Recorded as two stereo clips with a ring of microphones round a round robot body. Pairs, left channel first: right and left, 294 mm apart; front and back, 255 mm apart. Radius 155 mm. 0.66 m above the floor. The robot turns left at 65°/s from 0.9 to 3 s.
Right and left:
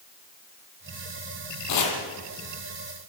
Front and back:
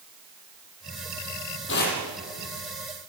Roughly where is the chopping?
Ahead right.